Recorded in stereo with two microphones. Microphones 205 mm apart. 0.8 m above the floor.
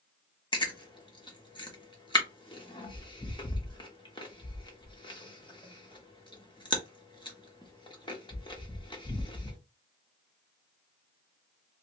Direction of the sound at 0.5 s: 20° left (ahead or behind).